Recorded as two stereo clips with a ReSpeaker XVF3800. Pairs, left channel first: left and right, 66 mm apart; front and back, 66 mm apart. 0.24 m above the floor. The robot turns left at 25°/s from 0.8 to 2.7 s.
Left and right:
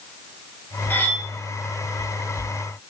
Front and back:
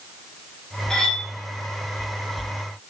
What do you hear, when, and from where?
0.9 s cutlery clinking: 70° left, 0.6 m; by 1.3 s 60° left, 0.6 m